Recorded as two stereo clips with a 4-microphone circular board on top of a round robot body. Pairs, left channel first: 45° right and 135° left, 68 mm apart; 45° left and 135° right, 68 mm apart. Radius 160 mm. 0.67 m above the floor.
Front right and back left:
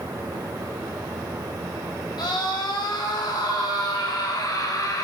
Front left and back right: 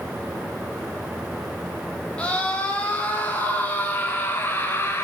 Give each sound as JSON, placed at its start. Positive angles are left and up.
{"t": 2.2, "sound": "a scream", "azimuth_deg": -30, "distance_m": 5.0}